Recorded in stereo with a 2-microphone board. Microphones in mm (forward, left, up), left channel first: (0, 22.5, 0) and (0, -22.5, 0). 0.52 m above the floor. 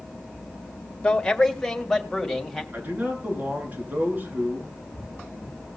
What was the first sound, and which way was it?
A man speaking, 20° left (ahead or behind).